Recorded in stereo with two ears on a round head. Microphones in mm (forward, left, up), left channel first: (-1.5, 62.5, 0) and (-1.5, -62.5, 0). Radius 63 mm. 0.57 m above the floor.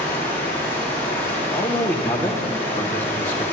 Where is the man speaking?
15° left (ahead or behind), 1.5 m.